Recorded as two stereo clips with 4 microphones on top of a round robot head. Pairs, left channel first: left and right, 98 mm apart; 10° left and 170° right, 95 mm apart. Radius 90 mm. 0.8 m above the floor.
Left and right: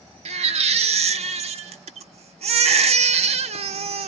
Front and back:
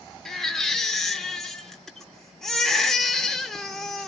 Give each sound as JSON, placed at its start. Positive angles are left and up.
{"t": 0.2, "sound": "a baby crying", "azimuth_deg": -75, "distance_m": 0.9}